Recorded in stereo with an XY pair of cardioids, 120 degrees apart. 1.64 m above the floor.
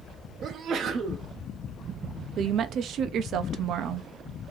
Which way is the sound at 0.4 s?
55° right.